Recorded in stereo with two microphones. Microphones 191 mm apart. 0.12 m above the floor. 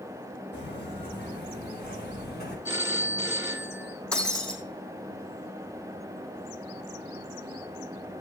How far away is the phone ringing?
About 1.7 m.